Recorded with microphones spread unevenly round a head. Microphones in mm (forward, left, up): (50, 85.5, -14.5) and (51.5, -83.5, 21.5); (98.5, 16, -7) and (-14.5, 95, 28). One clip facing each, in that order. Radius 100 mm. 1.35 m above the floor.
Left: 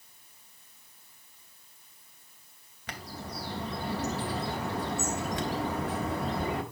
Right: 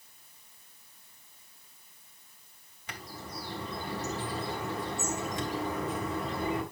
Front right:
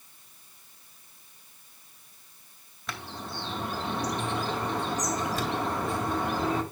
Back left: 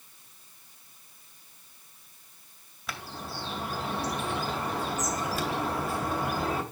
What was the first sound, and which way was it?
A bird, 65° left.